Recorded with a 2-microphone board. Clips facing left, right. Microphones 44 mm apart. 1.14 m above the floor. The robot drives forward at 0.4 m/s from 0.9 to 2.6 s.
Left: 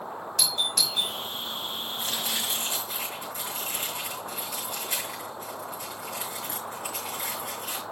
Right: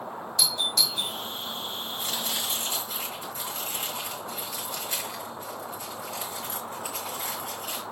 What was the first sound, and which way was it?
A doorbell, 60° left (ahead or behind).